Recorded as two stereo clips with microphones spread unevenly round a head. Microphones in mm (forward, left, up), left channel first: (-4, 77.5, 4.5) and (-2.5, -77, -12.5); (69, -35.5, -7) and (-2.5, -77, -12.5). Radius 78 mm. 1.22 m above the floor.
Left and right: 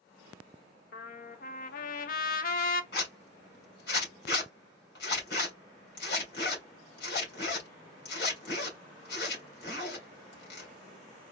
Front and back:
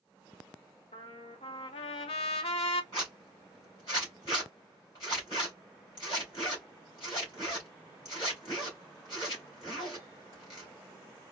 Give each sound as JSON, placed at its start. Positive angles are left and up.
{"t": 0.9, "sound": "a trumpet", "azimuth_deg": 55, "distance_m": 0.6}
{"t": 2.9, "sound": "a zipper", "azimuth_deg": 90, "distance_m": 2.5}